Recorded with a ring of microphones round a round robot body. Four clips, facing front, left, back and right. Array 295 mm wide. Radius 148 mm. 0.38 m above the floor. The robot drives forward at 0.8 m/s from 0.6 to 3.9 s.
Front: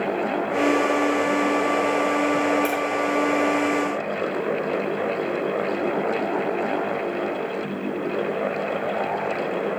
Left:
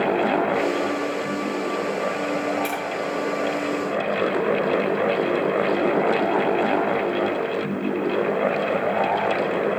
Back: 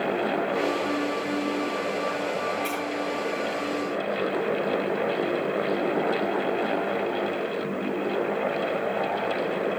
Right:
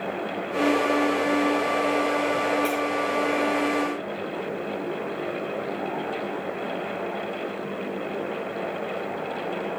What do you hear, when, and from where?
2.6 s tapping: 30° left, 7.5 m